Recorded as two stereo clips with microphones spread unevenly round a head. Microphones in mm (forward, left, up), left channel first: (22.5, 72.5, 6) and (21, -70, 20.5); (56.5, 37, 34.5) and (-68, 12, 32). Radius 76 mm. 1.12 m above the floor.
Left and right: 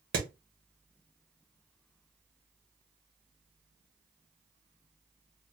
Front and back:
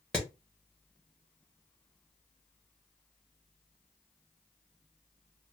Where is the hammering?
70° right, 1.2 m.